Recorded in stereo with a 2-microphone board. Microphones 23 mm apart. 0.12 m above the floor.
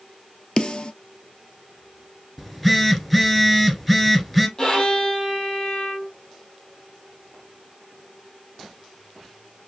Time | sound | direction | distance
0.6 | a snare drum | 45° left (ahead or behind) | 0.5 m
2.4 | a phone buzzing | 10° left (ahead or behind) | 1.2 m
4.6 | a violin | 40° left (ahead or behind) | 2.5 m